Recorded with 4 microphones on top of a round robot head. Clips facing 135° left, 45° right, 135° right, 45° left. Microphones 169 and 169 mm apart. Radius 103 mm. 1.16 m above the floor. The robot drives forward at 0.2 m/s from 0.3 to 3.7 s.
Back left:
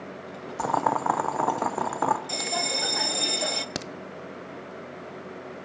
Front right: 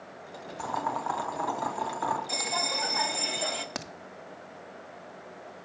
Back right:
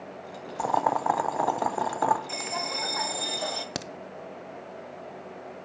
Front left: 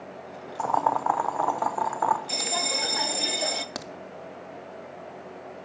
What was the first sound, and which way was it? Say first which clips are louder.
Boiling: back left 7 dB, even; 145° left.